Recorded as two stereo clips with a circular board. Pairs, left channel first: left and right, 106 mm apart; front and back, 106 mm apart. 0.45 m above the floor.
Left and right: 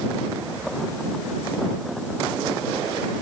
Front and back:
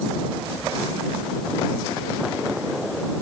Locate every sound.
Only background noise.